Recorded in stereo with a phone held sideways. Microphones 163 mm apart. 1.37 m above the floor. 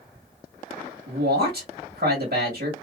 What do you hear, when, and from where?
1.1 s a man speaking: 85° right, 1.4 m